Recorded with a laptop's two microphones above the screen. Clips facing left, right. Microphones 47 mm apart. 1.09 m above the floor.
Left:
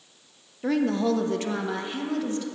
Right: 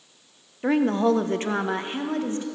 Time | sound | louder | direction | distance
0.6 | a woman speaking | right 3 dB | 30° right (ahead or behind) | 0.6 m